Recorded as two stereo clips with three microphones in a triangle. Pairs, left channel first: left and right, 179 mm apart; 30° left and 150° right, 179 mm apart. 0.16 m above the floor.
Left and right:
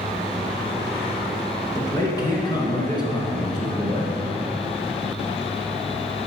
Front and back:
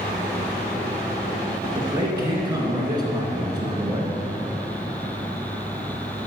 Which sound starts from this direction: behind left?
A man speaking, at 1.8 s.